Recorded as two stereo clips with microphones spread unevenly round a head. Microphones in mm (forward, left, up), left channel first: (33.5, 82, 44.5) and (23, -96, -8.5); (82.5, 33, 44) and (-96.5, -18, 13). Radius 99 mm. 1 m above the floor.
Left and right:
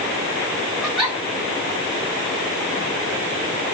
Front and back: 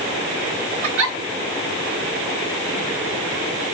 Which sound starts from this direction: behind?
A giggle, at 0.8 s.